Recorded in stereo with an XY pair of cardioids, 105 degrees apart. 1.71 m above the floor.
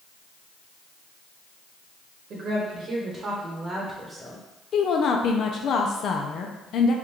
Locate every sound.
2.3 s a woman speaking: 70° right, 1.3 m; by 4.4 s 10° right, 1.1 m
4.7 s a woman speaking: 60° left, 0.6 m